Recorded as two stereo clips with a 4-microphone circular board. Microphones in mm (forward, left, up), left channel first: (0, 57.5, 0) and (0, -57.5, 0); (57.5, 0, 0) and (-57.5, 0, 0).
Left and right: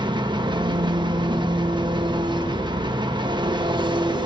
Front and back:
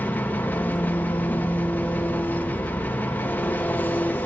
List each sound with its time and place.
0.0 s an engine running: 65° right, 0.9 m